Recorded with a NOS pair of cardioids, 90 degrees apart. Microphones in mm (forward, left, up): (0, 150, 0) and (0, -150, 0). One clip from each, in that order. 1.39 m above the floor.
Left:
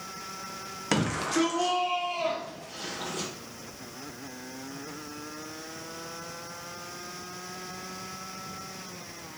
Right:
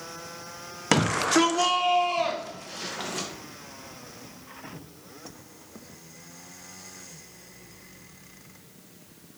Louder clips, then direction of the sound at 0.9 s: Right 6 dB; 25° right.